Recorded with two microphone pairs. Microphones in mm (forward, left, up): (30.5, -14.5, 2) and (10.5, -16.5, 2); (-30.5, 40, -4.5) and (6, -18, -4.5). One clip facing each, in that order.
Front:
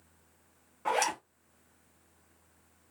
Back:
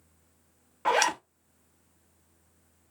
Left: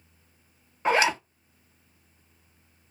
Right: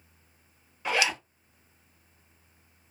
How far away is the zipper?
About 0.6 m.